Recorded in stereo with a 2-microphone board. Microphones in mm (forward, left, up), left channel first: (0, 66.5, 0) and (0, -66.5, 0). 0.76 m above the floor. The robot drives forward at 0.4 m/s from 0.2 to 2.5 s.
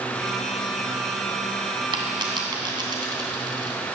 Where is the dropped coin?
35° right (ahead or behind), 2.5 m.